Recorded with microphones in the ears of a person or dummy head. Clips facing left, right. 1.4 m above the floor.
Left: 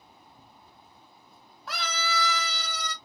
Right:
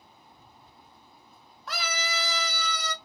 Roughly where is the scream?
Centre.